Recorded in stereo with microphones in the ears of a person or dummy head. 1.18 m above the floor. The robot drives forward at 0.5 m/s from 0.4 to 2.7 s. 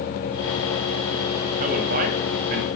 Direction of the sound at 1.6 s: 35° right (ahead or behind).